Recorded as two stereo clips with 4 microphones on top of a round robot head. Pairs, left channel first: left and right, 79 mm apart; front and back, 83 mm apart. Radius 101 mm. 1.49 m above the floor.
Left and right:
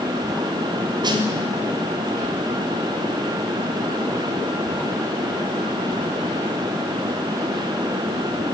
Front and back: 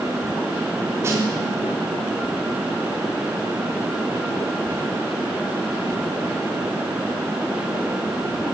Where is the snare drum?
120° right, 3.5 m.